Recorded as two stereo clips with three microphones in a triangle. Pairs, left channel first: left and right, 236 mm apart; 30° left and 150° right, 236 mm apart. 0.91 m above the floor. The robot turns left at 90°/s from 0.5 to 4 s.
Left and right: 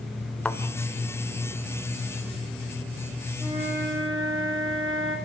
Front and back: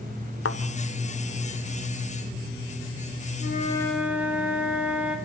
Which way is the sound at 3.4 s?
10° right.